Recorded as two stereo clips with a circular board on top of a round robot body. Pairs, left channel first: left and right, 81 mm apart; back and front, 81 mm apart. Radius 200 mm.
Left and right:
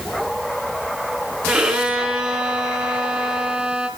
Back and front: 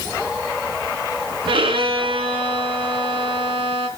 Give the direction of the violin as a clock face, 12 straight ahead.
12 o'clock.